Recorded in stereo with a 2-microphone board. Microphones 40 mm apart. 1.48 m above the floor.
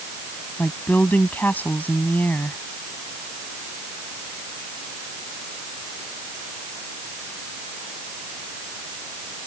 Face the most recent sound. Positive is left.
turn(degrees=45)  # may be behind; listen again after turning